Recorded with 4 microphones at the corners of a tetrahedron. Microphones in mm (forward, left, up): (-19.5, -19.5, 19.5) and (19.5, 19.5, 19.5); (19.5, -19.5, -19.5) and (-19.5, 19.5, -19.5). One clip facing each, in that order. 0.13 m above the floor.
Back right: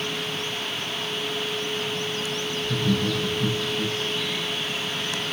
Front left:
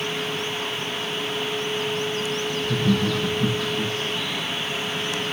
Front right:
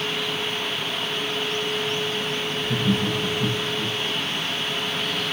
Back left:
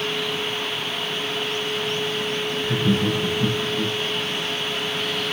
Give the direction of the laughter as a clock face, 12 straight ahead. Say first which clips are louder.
Front left 2 dB, back left 2 dB; 9 o'clock.